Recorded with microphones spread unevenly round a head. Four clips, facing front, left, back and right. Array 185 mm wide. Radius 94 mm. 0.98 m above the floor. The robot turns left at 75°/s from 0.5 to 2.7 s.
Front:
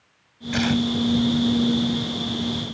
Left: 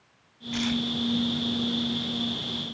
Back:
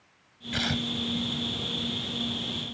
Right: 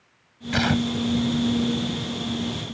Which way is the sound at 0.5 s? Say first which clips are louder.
Right 6 dB, front 10 dB; 65° right.